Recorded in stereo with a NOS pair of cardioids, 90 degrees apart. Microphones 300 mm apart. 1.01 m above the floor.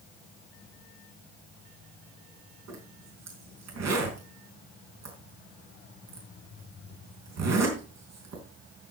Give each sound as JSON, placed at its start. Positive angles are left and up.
{"t": 2.7, "sound": "a zipper", "azimuth_deg": -55, "distance_m": 4.5}